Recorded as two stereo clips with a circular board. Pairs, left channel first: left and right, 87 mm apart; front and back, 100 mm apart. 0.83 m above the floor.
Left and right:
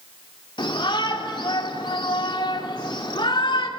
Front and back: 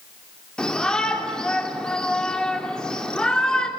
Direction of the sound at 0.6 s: 80° left.